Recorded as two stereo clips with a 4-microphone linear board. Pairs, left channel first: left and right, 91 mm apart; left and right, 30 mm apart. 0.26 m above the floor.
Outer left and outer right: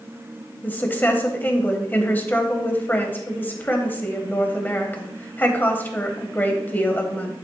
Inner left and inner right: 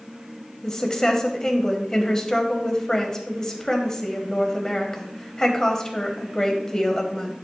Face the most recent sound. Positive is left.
turn(degrees=20)  # may be behind; listen again after turning